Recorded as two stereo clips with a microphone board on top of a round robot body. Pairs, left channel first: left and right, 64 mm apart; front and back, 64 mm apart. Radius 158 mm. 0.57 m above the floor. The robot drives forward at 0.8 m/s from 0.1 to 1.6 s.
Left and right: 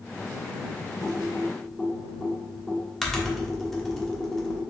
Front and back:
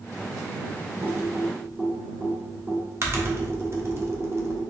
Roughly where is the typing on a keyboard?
Behind left.